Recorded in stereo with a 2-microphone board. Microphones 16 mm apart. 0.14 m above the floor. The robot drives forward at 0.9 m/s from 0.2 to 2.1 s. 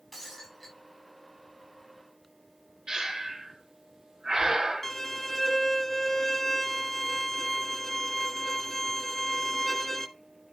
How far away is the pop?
No pop in this recording.